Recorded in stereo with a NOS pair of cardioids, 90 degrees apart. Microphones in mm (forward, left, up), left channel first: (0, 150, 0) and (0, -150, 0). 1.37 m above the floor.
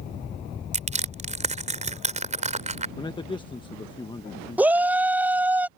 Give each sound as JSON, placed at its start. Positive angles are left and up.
{"t": 0.7, "sound": "crushing", "azimuth_deg": -25}
{"t": 3.0, "sound": "a man speaking", "azimuth_deg": 15}
{"t": 4.6, "sound": "a shout", "azimuth_deg": -5}